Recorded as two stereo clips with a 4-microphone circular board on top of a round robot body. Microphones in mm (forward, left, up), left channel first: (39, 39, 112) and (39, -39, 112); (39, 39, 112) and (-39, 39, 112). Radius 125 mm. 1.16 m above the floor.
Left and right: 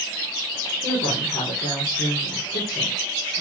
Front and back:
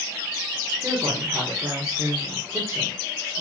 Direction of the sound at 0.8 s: 115° left.